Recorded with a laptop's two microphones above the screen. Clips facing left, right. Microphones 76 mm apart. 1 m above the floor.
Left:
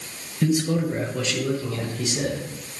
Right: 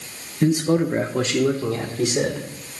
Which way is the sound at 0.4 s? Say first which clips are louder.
Right 4 dB; 30° right (ahead or behind).